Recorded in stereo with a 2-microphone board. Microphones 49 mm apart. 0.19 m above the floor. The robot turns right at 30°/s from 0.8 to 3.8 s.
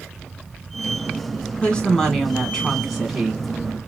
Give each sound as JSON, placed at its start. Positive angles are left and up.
{"t": 1.6, "sound": "a woman speaking", "azimuth_deg": 140, "distance_m": 1.6}